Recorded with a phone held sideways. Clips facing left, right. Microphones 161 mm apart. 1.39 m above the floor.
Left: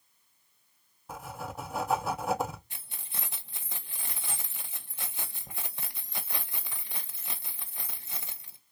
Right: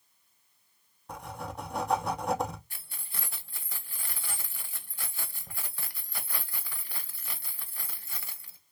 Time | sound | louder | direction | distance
1.1 | writing | even | 5° left (ahead or behind) | 0.5 m
2.7 | keys jangling | left 1 dB | 20° left (ahead or behind) | 0.6 m